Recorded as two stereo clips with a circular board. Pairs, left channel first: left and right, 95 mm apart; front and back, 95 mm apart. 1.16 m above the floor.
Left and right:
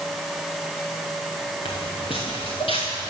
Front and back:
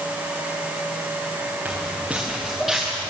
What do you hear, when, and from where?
1.6 s footsteps: 105° left, 5 m; by 3.1 s 85° left, 6.5 m